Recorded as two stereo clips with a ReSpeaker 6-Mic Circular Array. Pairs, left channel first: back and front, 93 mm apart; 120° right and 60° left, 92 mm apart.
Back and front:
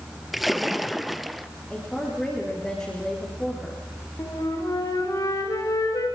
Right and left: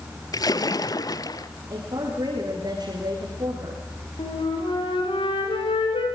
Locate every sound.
0.3 s a splash: 90° right, 1.0 m
1.7 s a woman speaking: 95° left, 6 m
4.2 s a flute: 125° right, 9.5 m